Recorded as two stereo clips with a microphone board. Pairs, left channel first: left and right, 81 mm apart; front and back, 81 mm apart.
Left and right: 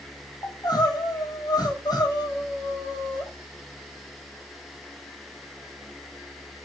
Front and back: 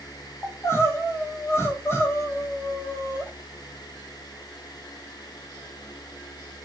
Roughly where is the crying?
Ahead left.